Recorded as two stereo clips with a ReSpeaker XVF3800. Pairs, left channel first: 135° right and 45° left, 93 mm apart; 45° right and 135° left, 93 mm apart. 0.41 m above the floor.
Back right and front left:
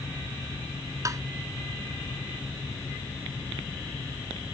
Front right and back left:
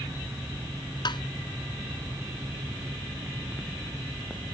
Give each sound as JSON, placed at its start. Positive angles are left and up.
{"t": 1.1, "sound": "tapping", "azimuth_deg": -10}